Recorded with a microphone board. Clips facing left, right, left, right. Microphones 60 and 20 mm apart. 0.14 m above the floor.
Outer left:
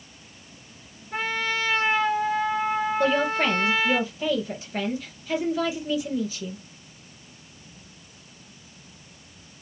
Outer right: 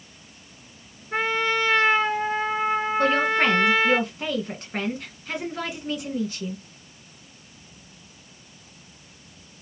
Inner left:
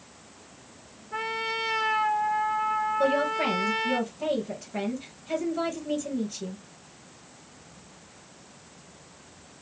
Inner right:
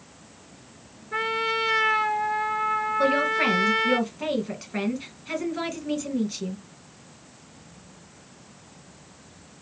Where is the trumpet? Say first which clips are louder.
Outer right 4 dB, inner right 5 dB; 45° right (ahead or behind), 1.6 m.